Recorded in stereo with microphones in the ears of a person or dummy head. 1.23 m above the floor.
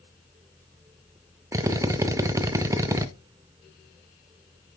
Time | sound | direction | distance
1.5 | a drill | 10° right (ahead or behind) | 0.6 m